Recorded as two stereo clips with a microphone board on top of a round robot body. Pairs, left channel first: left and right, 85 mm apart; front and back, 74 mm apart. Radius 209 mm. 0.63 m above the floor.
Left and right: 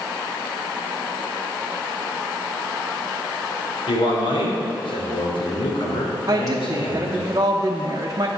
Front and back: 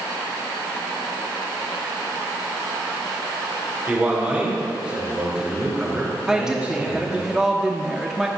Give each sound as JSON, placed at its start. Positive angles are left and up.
{"t": 3.9, "sound": "a man speaking", "azimuth_deg": 105, "distance_m": 2.5}
{"t": 6.3, "sound": "a woman speaking", "azimuth_deg": -100, "distance_m": 0.9}